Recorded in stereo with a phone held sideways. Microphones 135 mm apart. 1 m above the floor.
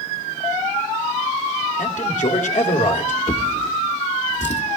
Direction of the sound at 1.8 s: 70° left (ahead or behind).